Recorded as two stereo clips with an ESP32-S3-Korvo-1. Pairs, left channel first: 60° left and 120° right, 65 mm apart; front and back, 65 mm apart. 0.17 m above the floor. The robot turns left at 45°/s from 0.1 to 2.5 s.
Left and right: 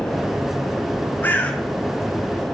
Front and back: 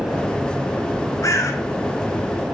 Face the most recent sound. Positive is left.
turn(degrees=-50)